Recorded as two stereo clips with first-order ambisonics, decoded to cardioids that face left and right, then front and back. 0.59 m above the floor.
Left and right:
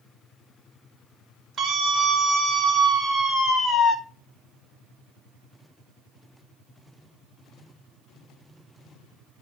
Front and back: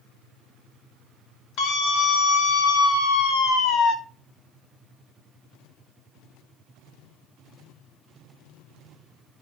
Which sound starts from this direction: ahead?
A scream, at 1.6 s.